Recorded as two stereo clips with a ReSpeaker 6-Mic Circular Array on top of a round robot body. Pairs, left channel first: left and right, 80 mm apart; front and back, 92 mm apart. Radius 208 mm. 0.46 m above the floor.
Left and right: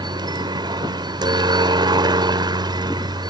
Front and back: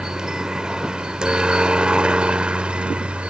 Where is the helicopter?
100° right; by 3.3 s 105° right.